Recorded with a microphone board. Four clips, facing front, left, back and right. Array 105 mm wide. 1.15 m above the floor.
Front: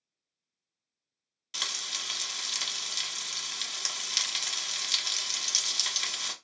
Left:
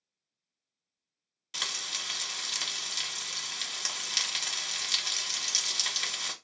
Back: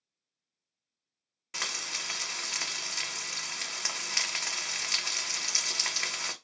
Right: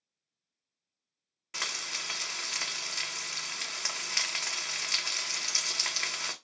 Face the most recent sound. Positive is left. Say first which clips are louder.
# right 1 dB, back 2 dB
turn(degrees=-140)